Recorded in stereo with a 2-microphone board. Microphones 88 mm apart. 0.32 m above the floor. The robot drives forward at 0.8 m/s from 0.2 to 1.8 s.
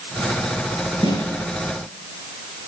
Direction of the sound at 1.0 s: 75° left (ahead or behind).